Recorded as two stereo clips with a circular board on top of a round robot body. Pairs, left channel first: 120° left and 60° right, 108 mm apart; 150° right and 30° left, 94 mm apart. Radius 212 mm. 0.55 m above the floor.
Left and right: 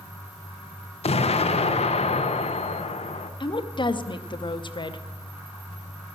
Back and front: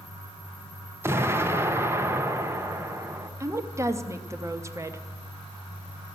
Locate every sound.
1.0 s an explosion: 95° left, 0.8 m
3.4 s a woman speaking: 85° left, 1.0 m